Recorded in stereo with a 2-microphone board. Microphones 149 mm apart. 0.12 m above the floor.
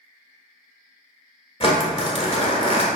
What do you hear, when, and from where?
1.6 s crumpling: 40° left (ahead or behind), 1.1 m